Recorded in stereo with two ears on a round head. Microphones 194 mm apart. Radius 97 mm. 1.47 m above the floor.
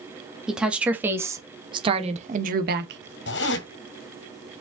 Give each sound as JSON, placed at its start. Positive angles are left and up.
{"t": 0.5, "sound": "a woman speaking", "side_deg": 0, "distance_m": 2.5}
{"t": 3.3, "sound": "a zipper", "side_deg": 55, "distance_m": 2.5}